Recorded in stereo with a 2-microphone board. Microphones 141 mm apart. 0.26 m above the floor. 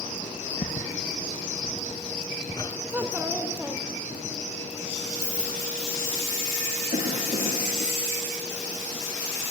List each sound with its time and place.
0.6 s footsteps: 50° left (ahead or behind), 1.9 m; by 2.8 s 25° left (ahead or behind), 3 m
2.9 s a child speaking: 15° right (ahead or behind), 2.5 m
5.2 s keys jangling: 30° left (ahead or behind), 6 m
6.9 s a cough: 70° left (ahead or behind), 4.5 m